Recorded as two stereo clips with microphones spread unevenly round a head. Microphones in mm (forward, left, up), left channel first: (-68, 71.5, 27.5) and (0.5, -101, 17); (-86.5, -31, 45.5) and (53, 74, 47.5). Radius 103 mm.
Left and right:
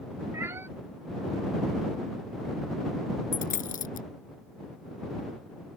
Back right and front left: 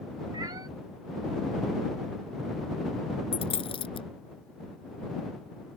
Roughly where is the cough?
No cough in this recording.